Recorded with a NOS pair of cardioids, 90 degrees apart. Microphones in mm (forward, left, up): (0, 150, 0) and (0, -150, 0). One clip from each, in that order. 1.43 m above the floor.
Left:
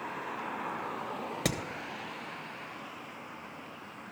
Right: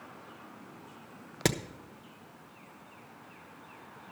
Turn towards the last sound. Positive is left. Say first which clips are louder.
# right 4 dB
turn(degrees=-25)